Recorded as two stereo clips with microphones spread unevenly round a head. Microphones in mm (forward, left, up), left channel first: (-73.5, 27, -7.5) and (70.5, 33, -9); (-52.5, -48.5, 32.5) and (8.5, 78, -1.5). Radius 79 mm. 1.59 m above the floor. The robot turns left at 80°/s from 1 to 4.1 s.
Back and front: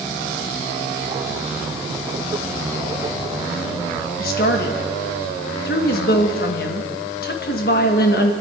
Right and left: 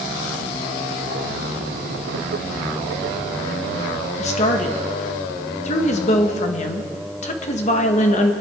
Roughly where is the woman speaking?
Behind right.